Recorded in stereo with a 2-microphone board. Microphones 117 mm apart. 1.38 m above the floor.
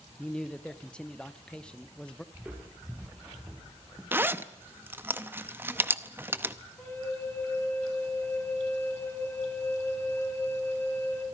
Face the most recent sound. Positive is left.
turn(degrees=20)  # may be behind; listen again after turning